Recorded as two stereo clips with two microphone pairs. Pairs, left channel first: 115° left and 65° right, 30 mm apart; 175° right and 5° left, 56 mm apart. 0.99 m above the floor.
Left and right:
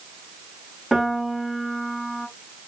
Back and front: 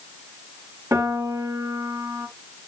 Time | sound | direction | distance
0.9 | a piano | 20° left | 1.6 m